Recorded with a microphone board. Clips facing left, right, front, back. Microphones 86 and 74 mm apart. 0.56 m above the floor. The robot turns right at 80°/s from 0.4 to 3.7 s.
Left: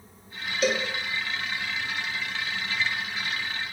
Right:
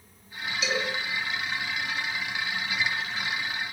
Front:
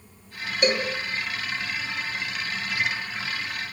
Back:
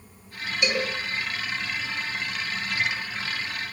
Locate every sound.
0.6 s a cowbell: 45° left, 4.5 m; by 0.9 s 65° left, 4.5 m